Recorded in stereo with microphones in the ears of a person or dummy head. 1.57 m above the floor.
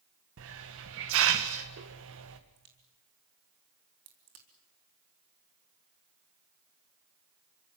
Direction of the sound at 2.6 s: 80° right.